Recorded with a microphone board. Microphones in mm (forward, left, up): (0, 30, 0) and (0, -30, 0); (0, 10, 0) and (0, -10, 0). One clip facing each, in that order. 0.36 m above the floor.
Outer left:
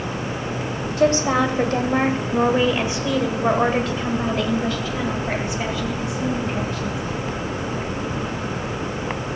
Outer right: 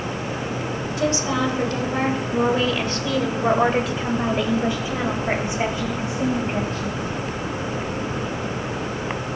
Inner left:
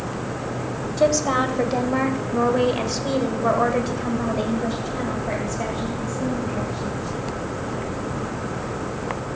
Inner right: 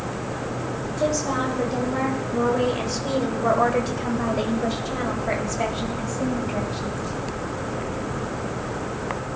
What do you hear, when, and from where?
1.0 s a woman speaking: 45° left (ahead or behind), 1.8 m; by 7.0 s 40° right (ahead or behind), 2.5 m